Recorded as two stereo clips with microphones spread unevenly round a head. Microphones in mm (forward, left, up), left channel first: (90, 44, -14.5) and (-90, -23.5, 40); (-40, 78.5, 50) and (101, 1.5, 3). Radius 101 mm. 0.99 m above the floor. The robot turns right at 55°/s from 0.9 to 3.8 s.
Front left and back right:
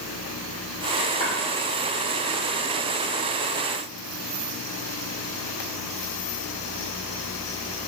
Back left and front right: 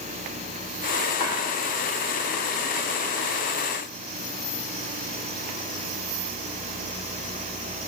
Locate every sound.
1.2 s chopping: 75° left, 1.2 m; by 1.4 s 85° left, 1.2 m